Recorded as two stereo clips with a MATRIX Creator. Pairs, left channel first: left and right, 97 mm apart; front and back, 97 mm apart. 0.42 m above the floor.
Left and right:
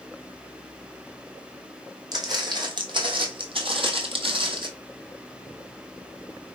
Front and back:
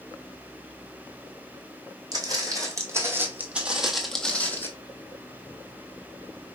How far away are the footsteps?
About 1.4 m.